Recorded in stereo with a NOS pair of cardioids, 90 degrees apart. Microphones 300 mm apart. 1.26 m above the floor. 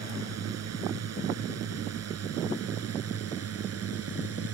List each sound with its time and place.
0.0 s a drone: 55° right; by 4.5 s 50° right